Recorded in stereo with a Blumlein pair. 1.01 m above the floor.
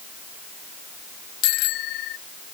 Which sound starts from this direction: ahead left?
A bicycle bell, at 1.4 s.